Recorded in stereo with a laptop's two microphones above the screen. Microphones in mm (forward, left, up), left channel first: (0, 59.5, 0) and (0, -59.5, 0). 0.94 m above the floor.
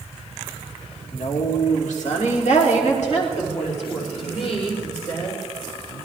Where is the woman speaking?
70° left (ahead or behind), 2 m; by 5.4 s 55° left (ahead or behind), 4 m.